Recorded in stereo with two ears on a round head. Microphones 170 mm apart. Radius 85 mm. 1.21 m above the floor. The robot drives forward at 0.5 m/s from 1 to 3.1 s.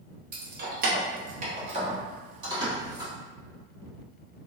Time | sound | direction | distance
0.3 | keys jangling | 50° right (ahead or behind) | 0.7 m